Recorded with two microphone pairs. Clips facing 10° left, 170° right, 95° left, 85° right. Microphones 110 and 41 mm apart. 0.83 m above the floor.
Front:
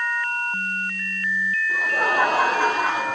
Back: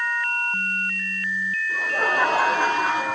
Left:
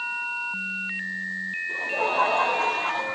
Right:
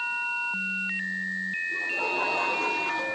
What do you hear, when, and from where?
1.7 s laughter: 90° left, 4 m; by 3.2 s 105° left, 4.5 m